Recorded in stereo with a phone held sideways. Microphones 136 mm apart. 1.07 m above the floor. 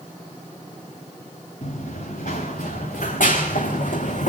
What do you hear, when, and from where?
1.6 s running footsteps: 70° left (ahead or behind), 5.5 m; by 4.3 s 60° left (ahead or behind), 3 m